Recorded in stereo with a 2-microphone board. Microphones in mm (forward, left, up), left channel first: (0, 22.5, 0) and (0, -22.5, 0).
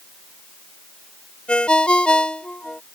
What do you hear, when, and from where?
1.5 s a ringtone: 20° left (ahead or behind)